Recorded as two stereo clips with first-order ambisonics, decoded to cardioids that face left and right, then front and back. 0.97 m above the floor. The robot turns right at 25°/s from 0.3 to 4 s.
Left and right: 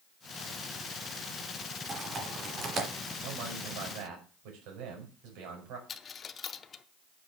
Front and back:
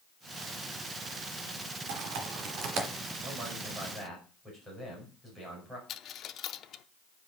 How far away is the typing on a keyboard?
About 1.9 m.